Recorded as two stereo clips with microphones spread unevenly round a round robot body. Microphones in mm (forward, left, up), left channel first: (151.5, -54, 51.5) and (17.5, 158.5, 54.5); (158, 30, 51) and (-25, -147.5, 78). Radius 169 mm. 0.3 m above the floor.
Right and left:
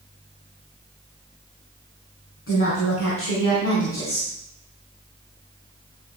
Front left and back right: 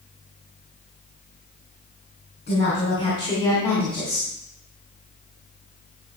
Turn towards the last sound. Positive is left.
turn(degrees=-45)